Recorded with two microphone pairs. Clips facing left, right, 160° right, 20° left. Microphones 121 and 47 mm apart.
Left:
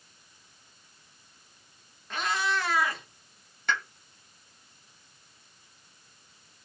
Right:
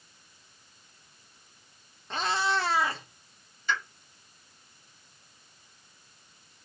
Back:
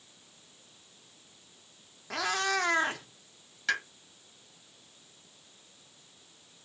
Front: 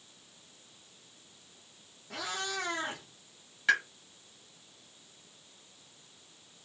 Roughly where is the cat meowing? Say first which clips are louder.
Right 1 dB, back 7 dB; behind right.